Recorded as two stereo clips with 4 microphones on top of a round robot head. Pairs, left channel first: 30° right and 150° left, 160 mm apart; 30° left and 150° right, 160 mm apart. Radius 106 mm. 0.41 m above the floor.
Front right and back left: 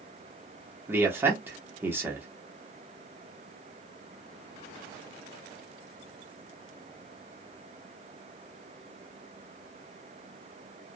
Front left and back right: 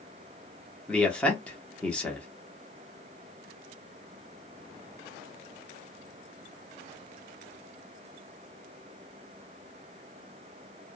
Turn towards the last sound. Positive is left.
turn(degrees=100)